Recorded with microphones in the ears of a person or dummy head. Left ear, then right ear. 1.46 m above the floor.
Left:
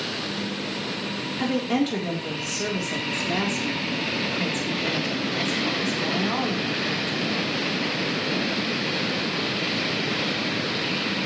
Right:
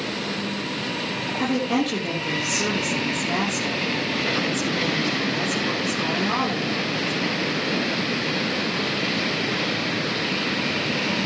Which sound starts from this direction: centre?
A woman speaking, at 1.4 s.